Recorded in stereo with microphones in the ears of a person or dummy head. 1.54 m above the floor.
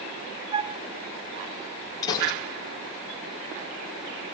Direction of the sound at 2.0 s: 25° left (ahead or behind).